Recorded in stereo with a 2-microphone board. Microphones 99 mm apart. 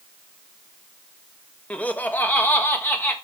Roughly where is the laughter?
Centre.